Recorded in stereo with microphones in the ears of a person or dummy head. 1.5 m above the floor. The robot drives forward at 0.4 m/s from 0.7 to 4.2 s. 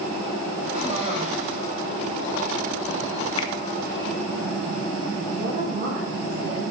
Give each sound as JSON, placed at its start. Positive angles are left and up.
{"t": 0.7, "sound": "a cough", "side_deg": -40, "distance_m": 2.5}
{"t": 3.4, "sound": "a finger snap", "side_deg": 25, "distance_m": 0.6}
{"t": 5.4, "sound": "a woman speaking", "side_deg": -35, "distance_m": 1.3}